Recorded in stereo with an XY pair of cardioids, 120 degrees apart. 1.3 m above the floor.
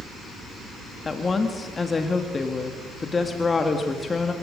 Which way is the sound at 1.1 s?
25° left.